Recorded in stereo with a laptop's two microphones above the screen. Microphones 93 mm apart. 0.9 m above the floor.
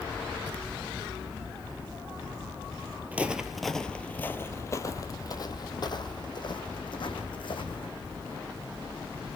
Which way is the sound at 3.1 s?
15° right (ahead or behind).